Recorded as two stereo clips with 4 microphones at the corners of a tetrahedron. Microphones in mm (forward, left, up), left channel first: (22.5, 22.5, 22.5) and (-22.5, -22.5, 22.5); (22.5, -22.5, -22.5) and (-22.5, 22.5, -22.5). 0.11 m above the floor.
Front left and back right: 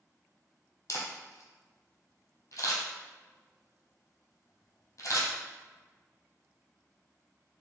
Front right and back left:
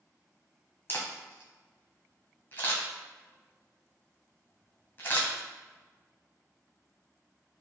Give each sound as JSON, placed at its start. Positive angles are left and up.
{"t": 0.9, "sound": "a camera shutter", "azimuth_deg": 10, "distance_m": 1.0}